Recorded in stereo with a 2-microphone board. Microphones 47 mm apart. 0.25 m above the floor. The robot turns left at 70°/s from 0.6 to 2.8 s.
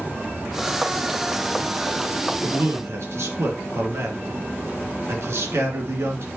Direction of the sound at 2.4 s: 55° right (ahead or behind).